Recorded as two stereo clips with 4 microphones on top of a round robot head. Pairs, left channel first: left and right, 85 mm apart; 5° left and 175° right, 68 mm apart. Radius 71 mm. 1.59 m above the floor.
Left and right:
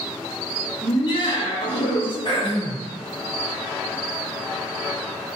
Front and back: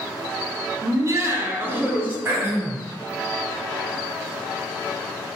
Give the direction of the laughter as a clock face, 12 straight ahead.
7 o'clock.